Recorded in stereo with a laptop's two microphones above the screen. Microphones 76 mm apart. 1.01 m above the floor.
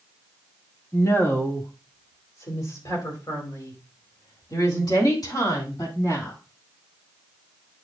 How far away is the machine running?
No machine running in this recording.